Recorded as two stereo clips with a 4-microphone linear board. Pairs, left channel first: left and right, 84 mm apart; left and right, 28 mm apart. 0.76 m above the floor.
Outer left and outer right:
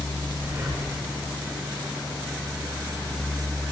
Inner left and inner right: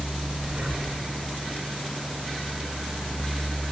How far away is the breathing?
About 1.8 m.